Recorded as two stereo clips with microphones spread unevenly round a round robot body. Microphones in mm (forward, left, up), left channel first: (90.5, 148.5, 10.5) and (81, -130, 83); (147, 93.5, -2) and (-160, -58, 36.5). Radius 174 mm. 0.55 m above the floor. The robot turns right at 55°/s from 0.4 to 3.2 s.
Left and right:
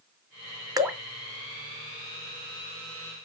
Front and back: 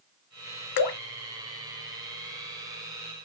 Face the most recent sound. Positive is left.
turn(degrees=120)